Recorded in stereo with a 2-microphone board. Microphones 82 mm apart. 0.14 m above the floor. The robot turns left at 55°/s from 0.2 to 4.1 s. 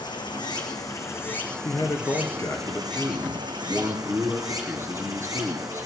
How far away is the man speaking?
About 2 m.